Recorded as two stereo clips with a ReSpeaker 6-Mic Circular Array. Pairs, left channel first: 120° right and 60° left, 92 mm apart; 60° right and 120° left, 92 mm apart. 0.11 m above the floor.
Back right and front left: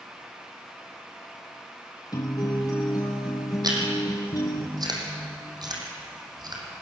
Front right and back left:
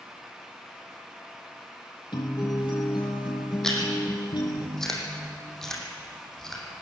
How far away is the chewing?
About 4 m.